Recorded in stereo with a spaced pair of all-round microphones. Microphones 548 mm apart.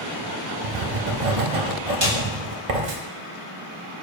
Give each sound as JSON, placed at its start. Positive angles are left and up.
{"t": 0.6, "sound": "writing", "side_deg": -70, "distance_m": 0.8}
{"t": 2.0, "sound": "a snare drum", "side_deg": -65, "distance_m": 2.5}